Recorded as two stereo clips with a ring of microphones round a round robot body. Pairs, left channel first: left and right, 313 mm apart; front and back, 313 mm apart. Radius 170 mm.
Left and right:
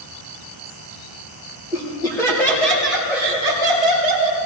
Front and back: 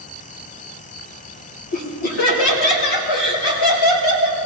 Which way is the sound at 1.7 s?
15° left.